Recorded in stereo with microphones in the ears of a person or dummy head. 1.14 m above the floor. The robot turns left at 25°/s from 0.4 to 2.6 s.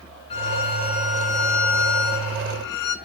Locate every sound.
0.3 s a violin: 155° left, 1.3 m; by 3.0 s 100° left, 1.3 m